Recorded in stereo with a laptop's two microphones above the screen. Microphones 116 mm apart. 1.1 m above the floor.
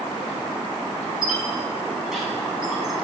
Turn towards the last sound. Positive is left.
turn(degrees=-5)  # may be behind; listen again after turning